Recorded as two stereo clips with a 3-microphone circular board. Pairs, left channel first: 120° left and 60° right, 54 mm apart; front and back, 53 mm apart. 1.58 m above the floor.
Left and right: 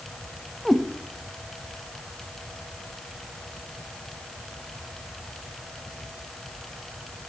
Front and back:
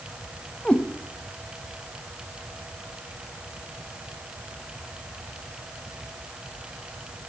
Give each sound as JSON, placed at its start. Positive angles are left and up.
{"t": 0.7, "sound": "a cat meowing", "azimuth_deg": 35, "distance_m": 0.9}